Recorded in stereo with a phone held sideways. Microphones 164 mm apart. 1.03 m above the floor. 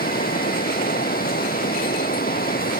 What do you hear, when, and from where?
0.0 s running water: 70° left (ahead or behind)